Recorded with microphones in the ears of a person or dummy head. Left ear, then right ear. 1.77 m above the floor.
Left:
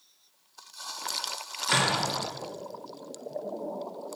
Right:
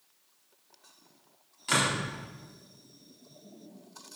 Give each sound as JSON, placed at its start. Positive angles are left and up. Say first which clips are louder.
{"t": 1.7, "sound": "a door slam", "louder": "left 2 dB", "side_deg": 5, "distance_m": 3.5}